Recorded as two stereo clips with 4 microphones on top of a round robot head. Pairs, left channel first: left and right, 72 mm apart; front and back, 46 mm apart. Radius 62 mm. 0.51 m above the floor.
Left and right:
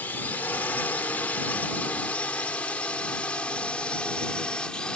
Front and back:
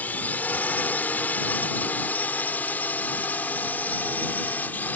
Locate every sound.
0.0 s a drone: 30° left; by 5.0 s 20° left